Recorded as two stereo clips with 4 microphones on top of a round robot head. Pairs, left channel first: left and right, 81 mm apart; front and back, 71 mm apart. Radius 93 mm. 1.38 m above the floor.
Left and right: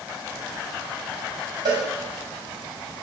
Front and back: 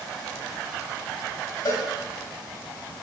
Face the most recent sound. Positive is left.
turn(degrees=-55)